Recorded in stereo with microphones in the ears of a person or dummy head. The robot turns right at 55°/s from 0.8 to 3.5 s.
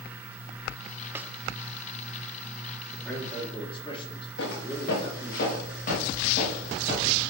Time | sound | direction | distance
1.1 | a snare drum | 15° right (ahead or behind) | 0.8 m
2.9 | a man speaking | straight ahead | 4 m
4.4 | footsteps | 70° left (ahead or behind) | 6.5 m